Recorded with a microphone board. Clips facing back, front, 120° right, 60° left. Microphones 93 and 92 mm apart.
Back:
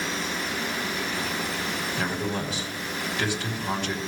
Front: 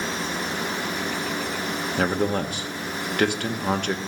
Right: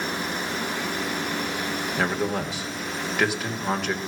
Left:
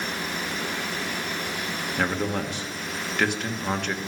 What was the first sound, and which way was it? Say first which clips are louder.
A man speaking: front 8 dB, even; 35° right.